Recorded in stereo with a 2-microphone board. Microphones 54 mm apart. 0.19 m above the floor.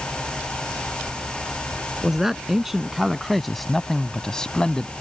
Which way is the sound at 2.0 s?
10° right (ahead or behind).